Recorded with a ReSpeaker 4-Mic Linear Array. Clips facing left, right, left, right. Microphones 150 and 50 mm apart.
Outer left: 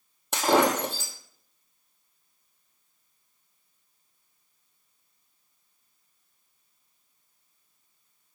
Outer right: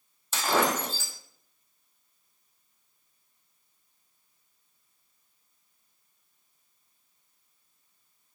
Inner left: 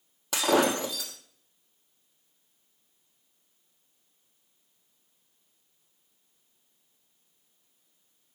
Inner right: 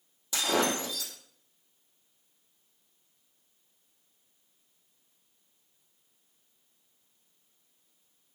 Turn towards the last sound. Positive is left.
turn(degrees=65)  # may be behind; listen again after turning